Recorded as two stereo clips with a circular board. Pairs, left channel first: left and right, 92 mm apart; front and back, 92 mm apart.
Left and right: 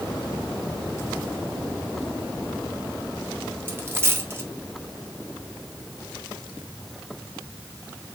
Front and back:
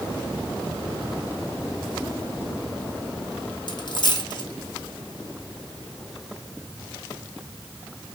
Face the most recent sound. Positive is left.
turn(degrees=-30)